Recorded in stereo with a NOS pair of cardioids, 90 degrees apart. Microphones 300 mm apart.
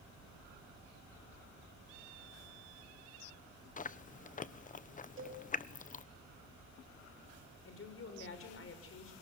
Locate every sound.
3.8 s chewing: 25° left, 1.0 m
5.2 s a cowbell: 40° right, 6.5 m
7.7 s a woman speaking: 45° left, 6 m